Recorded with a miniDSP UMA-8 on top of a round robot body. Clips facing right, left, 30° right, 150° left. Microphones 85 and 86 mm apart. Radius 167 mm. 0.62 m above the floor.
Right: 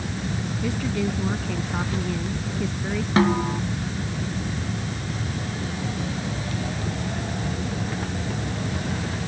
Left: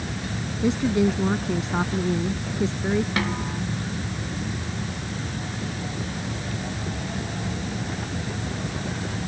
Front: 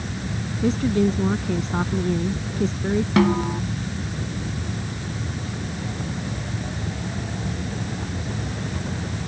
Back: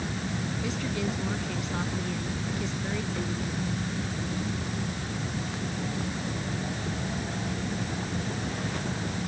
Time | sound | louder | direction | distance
0.6 | a woman speaking | left 6 dB, front 14 dB | 20° left | ?
3.2 | a snare drum | right 7 dB, front 13 dB | 30° right | ?